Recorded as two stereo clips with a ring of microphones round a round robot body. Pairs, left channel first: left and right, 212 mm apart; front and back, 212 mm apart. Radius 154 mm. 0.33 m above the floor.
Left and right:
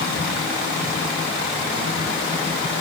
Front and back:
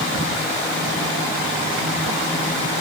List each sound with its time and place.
Only background noise.